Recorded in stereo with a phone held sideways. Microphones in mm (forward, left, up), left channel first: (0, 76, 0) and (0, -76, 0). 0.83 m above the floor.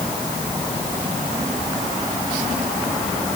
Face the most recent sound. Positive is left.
No sound to turn to.